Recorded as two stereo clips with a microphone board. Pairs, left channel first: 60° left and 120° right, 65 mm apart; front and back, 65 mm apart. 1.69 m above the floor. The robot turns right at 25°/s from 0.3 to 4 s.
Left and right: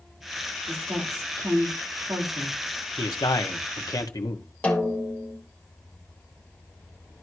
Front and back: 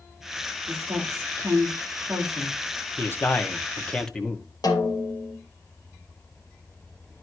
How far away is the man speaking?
About 1.4 m.